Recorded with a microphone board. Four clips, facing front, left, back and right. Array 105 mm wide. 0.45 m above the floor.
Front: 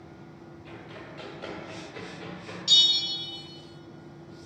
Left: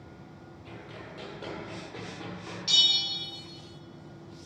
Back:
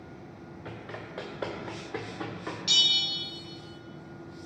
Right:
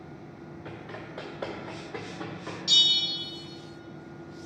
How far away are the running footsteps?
About 2.5 m.